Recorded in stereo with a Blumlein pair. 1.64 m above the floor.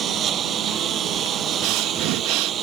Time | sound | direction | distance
0.0 | a lawn mower | 30° right | ?
1.6 | breathing | 45° right | ?